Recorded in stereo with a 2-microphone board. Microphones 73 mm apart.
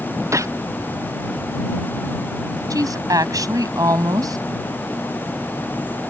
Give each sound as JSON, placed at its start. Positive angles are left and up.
{"t": 0.3, "sound": "a gunshot", "side_deg": -45}
{"t": 2.7, "sound": "a woman speaking", "side_deg": -60}